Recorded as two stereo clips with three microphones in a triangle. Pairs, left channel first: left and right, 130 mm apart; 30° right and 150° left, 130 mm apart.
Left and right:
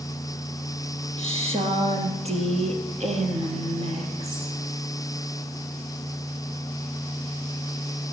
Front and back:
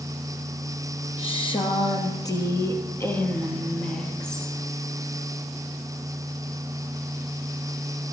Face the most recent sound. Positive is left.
turn(degrees=-115)